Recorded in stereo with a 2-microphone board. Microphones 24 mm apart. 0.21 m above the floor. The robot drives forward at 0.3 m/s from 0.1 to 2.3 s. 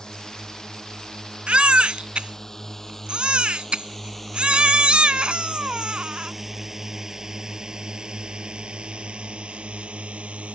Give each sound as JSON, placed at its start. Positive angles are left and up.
{"t": 0.0, "sound": "a drone", "side_deg": 30}
{"t": 1.5, "sound": "a baby crying", "side_deg": -55}